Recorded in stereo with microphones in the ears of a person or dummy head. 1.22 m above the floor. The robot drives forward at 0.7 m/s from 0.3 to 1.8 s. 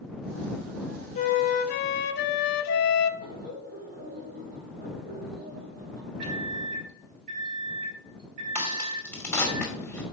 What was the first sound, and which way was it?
A flute, 35° left (ahead or behind).